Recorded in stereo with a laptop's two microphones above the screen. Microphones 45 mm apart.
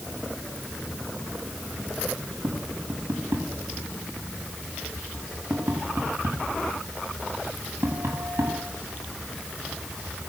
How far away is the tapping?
About 8 m.